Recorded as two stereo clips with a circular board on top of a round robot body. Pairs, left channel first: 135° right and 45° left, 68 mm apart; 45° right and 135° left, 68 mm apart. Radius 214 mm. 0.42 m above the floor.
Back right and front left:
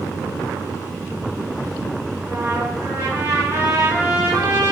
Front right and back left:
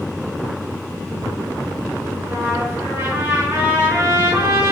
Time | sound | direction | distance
2.2 | a trumpet | 80° left | 6.5 m